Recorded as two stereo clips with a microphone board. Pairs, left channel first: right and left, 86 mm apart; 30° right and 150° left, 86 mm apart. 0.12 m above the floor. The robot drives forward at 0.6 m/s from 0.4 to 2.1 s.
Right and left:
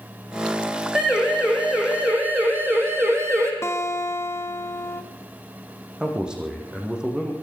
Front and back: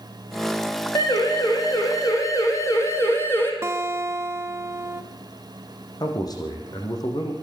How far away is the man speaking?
About 4.5 m.